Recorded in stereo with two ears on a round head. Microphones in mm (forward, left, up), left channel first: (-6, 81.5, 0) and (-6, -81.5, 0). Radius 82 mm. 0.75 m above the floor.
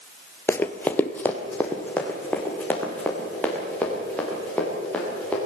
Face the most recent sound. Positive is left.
turn(degrees=5)  # may be behind; listen again after turning